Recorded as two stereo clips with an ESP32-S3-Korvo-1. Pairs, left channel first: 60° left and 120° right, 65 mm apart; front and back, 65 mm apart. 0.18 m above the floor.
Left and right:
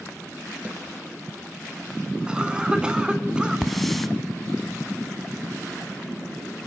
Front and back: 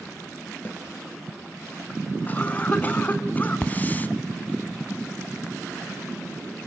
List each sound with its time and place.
0.7 s a snare drum: 55° right, 2.5 m
2.3 s a cough: 50° right, 1.3 m
3.6 s a hiss: 25° right, 0.9 m